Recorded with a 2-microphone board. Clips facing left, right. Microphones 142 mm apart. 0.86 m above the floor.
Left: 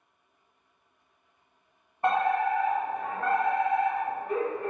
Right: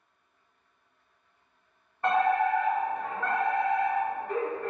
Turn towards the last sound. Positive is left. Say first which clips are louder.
# right 1 dB
turn(degrees=20)  # may be behind; listen again after turning